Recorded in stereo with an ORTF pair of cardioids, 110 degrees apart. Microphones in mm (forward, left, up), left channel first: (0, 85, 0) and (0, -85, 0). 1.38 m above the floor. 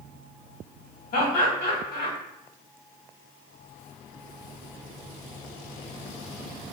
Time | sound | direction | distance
1.1 | laughter | 65° left | 1.4 m